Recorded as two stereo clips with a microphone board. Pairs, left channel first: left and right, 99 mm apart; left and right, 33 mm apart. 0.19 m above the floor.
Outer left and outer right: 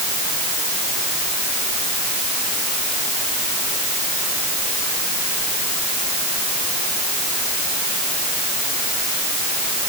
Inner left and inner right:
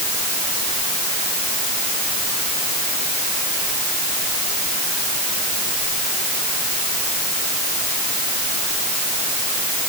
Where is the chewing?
I don't hear chewing.